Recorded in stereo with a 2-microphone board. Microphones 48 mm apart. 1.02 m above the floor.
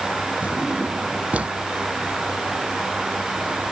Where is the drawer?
30° right (ahead or behind).